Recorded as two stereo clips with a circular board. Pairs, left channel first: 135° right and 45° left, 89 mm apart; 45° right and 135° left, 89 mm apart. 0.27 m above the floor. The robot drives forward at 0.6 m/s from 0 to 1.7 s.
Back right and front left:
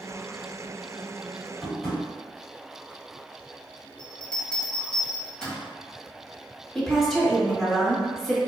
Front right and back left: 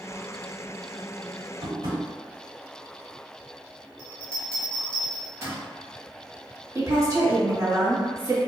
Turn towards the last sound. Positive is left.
turn(degrees=135)